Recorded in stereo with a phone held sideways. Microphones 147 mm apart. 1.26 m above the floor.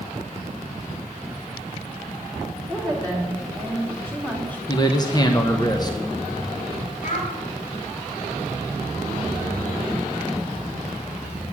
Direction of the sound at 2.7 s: 10° left (ahead or behind).